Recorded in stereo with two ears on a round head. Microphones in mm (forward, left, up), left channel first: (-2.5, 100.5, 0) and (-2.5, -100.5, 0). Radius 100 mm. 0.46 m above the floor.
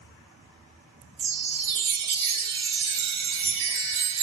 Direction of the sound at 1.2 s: 30° right (ahead or behind).